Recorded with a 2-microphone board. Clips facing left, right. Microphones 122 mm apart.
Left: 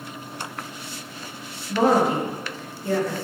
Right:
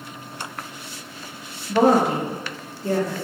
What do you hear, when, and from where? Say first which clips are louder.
1.7 s a woman speaking: right 2 dB; 65° right (ahead or behind), 2 m; by 3.1 s 35° right (ahead or behind), 1.8 m